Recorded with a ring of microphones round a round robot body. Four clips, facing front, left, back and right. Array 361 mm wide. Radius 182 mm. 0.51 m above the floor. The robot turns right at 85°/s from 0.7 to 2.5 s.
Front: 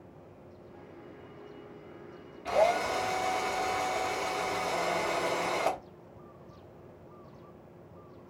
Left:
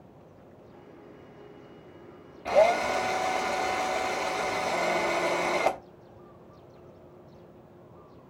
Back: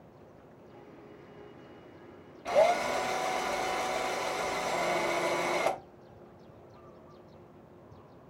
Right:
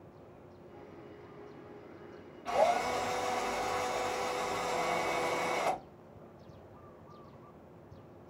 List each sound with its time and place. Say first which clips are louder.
2.5 s a drill: left 7 dB, back 1 dB; 80° left, 0.7 m; by 5.8 s 85° left, 0.7 m